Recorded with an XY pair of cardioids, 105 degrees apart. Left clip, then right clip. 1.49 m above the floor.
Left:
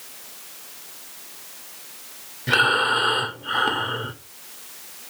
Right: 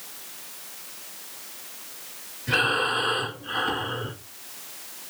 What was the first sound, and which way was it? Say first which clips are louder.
Breathing: left 4 dB; 70° left.